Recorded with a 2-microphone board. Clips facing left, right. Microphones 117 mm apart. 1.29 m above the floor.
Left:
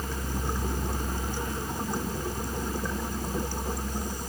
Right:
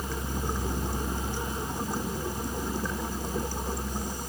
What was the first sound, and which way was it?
Only background noise.